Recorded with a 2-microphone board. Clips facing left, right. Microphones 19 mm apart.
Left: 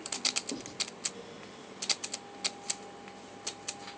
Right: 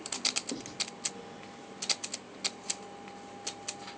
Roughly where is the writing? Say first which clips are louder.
Even; centre.